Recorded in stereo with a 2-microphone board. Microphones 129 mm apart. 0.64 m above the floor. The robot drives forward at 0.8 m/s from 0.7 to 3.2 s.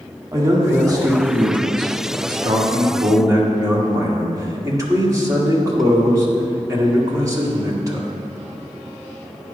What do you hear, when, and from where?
0.3 s a man speaking: 25° right (ahead or behind), 1.4 m